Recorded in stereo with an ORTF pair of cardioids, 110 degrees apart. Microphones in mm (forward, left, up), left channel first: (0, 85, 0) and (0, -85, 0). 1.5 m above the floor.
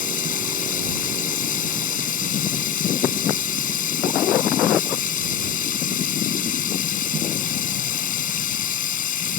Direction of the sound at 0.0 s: 50° left.